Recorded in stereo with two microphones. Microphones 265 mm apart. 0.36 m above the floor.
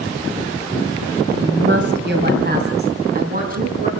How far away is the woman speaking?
About 2.5 m.